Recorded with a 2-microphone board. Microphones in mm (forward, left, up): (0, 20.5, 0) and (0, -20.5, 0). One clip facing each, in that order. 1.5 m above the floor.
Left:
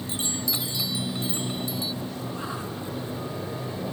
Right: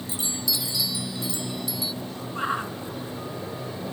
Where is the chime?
35° left (ahead or behind).